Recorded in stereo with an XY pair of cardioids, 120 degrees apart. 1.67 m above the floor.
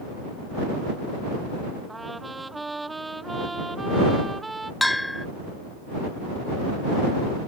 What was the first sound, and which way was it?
A trumpet, 15° right.